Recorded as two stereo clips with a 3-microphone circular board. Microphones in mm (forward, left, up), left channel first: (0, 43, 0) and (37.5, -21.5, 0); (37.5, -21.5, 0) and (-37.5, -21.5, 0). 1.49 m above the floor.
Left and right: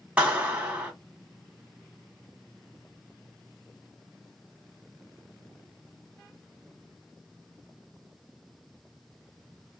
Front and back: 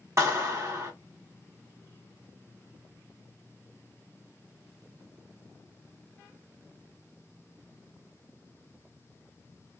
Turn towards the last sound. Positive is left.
turn(degrees=-130)